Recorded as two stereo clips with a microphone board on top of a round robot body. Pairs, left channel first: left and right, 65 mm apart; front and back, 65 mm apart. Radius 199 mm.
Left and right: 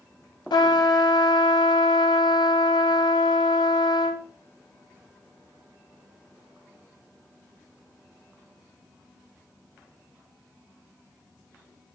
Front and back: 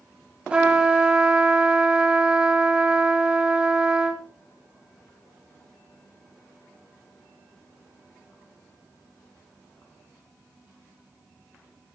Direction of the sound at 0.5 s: 105° left.